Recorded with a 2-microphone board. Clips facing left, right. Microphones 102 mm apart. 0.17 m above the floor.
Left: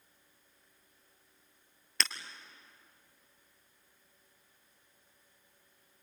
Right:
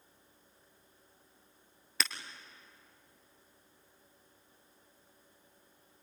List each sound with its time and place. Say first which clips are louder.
2.0 s breaking glass: even; 5° right (ahead or behind), 1.5 m